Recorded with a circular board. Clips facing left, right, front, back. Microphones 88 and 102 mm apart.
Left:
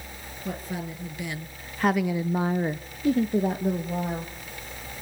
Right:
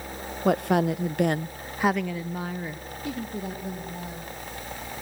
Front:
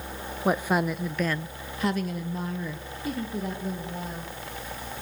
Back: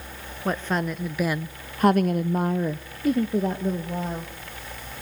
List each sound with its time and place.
0.5 s a woman speaking: 75° right, 1.2 m; by 4.3 s 130° left, 2.5 m